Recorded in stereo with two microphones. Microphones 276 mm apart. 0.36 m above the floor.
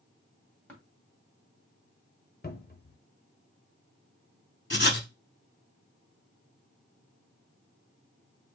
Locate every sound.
0.7 s tapping: 5° left (ahead or behind), 2 m
2.4 s a cupboard door: 35° left (ahead or behind), 0.7 m
4.7 s writing: 40° left (ahead or behind), 0.7 m